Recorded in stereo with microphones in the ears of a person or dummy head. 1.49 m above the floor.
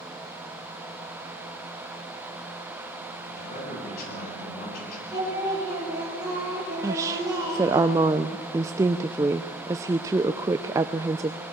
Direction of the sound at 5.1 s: 20° right (ahead or behind).